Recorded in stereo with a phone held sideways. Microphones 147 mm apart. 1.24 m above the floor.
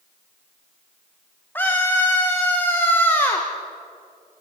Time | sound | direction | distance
1.6 | a scream | 15° left (ahead or behind) | 1.6 m